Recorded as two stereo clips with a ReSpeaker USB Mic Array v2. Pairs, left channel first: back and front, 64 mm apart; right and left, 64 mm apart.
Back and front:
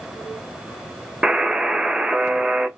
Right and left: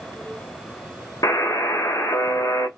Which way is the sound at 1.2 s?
75° right.